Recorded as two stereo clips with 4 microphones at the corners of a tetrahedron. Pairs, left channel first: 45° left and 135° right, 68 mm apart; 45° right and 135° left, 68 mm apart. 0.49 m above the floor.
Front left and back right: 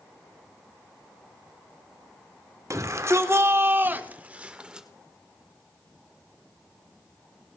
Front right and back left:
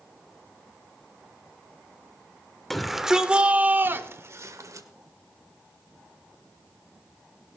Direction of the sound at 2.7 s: 130° right.